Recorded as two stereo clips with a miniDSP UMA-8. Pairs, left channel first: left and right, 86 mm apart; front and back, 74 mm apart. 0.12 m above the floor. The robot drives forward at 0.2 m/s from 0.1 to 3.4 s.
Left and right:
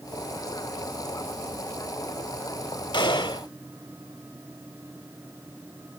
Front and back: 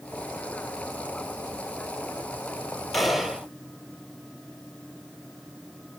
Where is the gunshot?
90° left, 0.8 m; by 3.5 s 100° left, 0.8 m.